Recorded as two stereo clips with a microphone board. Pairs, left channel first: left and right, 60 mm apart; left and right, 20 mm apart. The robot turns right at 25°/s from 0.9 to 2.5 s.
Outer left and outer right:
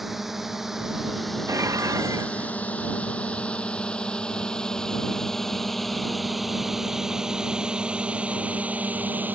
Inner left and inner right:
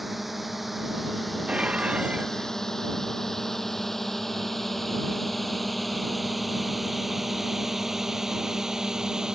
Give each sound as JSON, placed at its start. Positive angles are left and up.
{"t": 0.0, "sound": "a drone", "side_deg": 0}
{"t": 1.5, "sound": "dishes clattering", "side_deg": -60}